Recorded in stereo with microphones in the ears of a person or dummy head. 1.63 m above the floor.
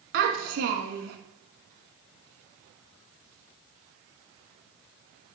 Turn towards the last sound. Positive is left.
turn(degrees=-50)  # may be behind; listen again after turning